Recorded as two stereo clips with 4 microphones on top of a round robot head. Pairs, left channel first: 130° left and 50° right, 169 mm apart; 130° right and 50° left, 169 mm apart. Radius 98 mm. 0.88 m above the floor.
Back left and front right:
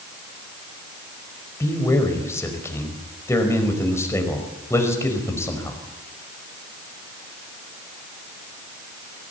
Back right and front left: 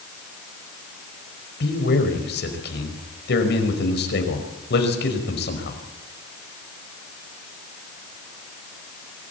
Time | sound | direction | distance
1.6 | a man speaking | 155° right | 5 m